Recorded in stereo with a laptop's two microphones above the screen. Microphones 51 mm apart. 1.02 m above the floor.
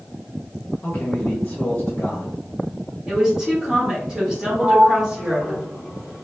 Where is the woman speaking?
15° right (ahead or behind), 1.3 m.